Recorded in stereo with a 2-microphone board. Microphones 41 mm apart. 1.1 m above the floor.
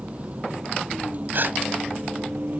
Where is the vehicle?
30° right (ahead or behind); by 2.6 s 40° right (ahead or behind).